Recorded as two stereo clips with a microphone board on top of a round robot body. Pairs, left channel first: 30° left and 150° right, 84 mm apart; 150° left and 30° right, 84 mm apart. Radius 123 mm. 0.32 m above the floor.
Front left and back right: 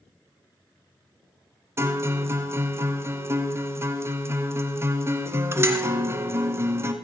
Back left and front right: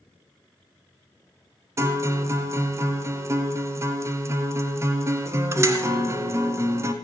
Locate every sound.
1.8 s a guitar: 90° right, 1.4 m